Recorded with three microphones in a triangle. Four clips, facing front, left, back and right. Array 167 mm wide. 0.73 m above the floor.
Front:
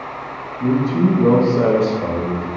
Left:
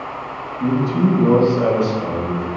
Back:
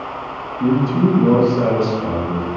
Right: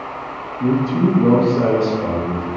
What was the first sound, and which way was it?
A man speaking, 170° right.